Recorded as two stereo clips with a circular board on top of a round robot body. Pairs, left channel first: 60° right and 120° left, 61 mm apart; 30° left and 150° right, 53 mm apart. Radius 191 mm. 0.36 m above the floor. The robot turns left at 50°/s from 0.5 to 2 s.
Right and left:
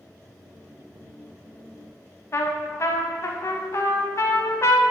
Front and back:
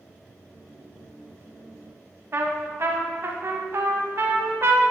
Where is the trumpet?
105° right, 0.7 m.